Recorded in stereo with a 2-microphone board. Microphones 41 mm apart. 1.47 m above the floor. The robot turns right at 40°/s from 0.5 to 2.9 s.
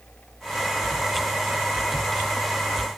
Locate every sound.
Only background noise.